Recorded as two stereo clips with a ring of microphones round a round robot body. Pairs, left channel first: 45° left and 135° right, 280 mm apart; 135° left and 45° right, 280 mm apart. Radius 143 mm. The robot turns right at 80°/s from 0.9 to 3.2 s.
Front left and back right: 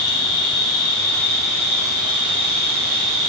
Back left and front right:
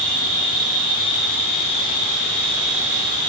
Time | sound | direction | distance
0.0 | an insect | 90° left | 0.7 m